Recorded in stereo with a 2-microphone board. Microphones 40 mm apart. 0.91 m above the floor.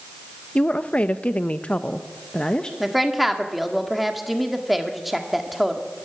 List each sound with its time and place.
0.6 s a woman speaking: 30° left (ahead or behind), 1.0 m; by 2.7 s 20° left (ahead or behind), 1.1 m
2.8 s a woman speaking: 5° right (ahead or behind), 1.9 m